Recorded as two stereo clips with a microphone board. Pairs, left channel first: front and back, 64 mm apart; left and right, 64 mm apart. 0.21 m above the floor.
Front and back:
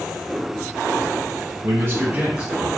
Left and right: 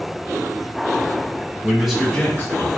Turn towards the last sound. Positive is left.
turn(degrees=105)